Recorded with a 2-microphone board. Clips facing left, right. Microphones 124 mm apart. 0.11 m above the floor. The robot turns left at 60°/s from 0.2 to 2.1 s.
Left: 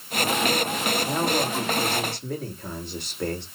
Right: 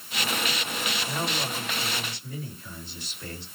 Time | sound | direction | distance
1.1 | a man speaking | 140° left | 6.5 m